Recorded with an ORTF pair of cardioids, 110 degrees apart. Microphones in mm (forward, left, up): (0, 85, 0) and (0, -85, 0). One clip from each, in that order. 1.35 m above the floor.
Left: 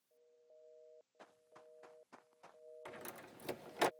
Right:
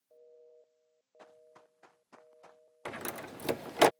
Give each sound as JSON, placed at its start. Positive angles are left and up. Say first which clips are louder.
{"t": 1.2, "sound": "running footsteps", "louder": "right 8 dB", "azimuth_deg": -15}
{"t": 2.9, "sound": "a door slam", "louder": "right 13 dB", "azimuth_deg": -55}